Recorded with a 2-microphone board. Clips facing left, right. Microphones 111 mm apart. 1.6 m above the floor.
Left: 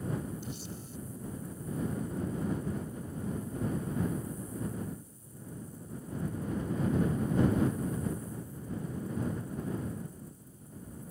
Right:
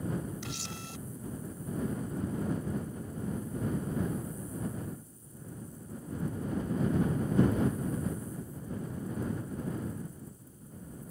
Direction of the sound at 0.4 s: 85° right.